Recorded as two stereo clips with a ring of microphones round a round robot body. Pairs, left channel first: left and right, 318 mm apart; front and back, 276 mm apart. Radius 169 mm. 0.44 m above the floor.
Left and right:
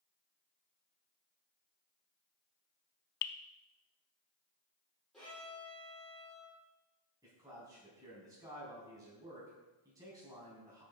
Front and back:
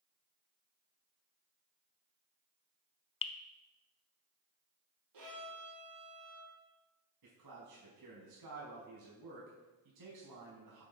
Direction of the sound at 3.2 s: 70° left.